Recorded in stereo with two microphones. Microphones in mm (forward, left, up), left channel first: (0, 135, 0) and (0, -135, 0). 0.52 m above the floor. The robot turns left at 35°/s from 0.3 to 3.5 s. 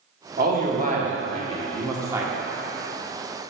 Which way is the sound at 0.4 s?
100° right.